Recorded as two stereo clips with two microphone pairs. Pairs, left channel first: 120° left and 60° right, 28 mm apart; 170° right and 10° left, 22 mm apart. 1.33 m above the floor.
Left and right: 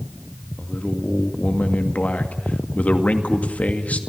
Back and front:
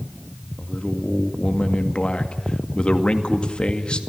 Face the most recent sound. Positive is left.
turn(degrees=145)